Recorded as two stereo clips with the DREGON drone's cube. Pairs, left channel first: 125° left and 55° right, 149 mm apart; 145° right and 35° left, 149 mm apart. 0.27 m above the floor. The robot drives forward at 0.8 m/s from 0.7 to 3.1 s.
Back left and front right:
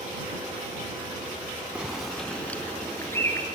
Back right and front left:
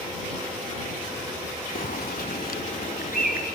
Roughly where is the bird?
Behind right.